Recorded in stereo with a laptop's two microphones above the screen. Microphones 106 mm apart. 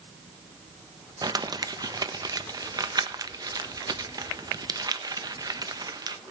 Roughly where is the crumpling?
Right.